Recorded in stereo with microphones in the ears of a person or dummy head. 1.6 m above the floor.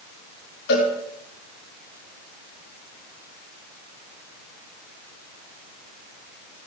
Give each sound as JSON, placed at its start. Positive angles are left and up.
{"t": 0.7, "sound": "a cowbell", "side_deg": 70, "distance_m": 4.5}